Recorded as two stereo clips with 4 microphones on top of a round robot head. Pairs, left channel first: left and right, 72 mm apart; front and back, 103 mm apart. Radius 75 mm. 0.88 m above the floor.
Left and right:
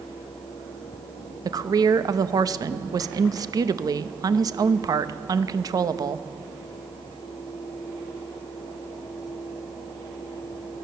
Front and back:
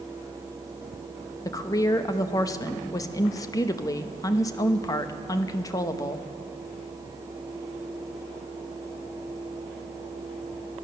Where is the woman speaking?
55° right, 0.7 m.